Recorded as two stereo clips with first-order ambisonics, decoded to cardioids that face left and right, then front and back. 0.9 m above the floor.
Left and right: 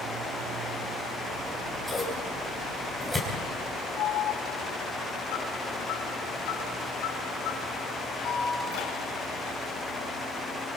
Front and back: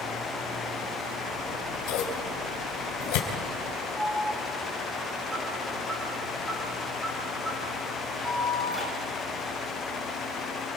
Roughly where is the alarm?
Left.